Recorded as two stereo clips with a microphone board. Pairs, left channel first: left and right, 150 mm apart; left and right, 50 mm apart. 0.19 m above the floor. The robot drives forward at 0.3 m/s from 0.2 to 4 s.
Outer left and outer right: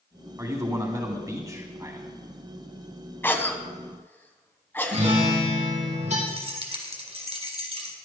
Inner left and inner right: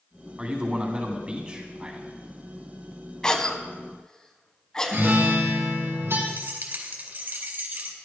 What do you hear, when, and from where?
0.4 s a man speaking: 25° right (ahead or behind), 1.9 m
3.2 s a cough: 15° left (ahead or behind), 1.1 m
4.9 s a guitar: 55° right (ahead or behind), 5 m
6.3 s keys jangling: 45° right (ahead or behind), 2 m